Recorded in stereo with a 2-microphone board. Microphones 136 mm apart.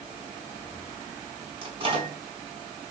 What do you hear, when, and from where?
1.6 s a microwave: 35° right (ahead or behind), 4.5 m